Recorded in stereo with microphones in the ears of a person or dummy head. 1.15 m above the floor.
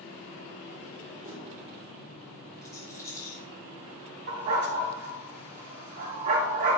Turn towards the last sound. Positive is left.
turn(degrees=-50)  # may be behind; listen again after turning